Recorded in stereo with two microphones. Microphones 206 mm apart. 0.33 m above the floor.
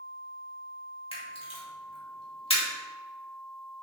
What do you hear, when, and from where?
1.1 s a camera shutter: 25° left (ahead or behind), 1.4 m